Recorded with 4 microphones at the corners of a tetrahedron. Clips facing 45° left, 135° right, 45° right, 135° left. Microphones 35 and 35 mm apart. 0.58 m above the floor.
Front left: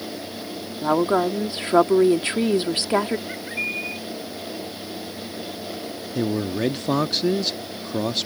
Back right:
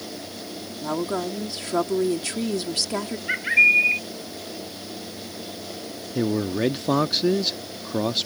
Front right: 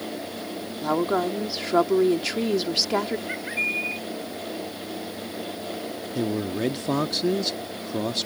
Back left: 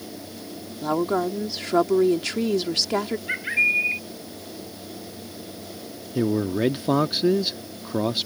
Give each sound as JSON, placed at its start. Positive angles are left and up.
{"t": 0.8, "sound": "a woman speaking", "azimuth_deg": 40}
{"t": 3.3, "sound": "a bird", "azimuth_deg": -165}
{"t": 6.2, "sound": "a man speaking", "azimuth_deg": 140}